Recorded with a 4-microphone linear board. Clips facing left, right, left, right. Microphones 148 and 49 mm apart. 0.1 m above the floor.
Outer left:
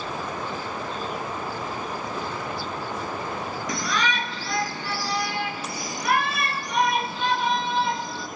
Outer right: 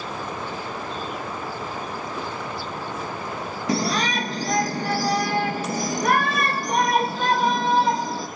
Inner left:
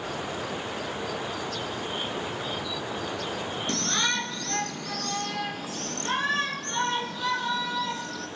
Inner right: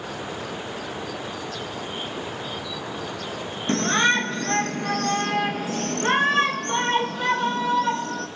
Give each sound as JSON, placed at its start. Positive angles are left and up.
{"t": 3.7, "sound": "a shout", "side_deg": -30, "distance_m": 1.3}